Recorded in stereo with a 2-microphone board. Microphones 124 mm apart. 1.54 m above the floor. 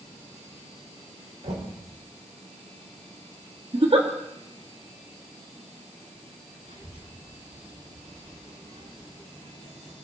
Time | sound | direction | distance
1.4 | knocking | 75° right (ahead or behind) | 4 m
3.7 | a giggle | 50° right (ahead or behind) | 2 m
6.6 | a child speaking | 85° right | 7.5 m